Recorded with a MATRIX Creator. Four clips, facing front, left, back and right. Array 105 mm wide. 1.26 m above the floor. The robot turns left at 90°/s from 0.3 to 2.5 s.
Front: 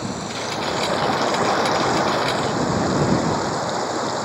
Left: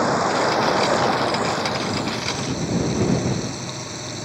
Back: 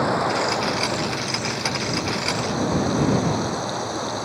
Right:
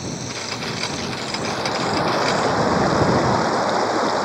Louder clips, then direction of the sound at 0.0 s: Left 11 dB, back 6 dB; 120° left.